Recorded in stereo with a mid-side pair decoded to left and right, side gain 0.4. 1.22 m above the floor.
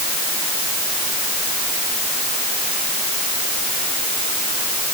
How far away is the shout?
No shout in this recording.